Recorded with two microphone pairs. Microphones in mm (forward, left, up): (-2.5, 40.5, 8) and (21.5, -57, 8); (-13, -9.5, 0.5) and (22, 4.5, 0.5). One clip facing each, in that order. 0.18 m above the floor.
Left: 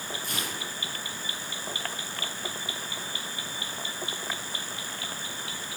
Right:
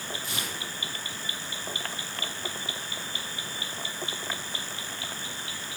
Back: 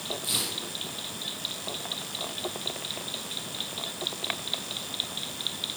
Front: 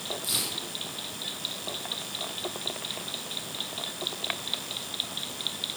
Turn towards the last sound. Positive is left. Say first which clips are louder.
# left 1 dB, back 1 dB
turn(degrees=145)